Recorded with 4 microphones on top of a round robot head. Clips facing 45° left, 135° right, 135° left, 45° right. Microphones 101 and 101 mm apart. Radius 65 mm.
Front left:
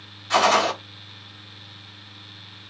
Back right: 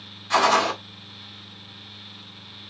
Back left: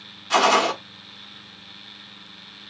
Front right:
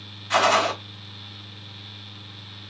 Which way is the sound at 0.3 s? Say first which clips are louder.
Front left 1 dB, back left 2 dB; 135° left.